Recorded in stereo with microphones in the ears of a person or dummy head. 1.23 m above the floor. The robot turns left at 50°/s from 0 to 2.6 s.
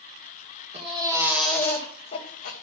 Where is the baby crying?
145° right, 2.5 m; by 2.5 s 125° left, 2.5 m.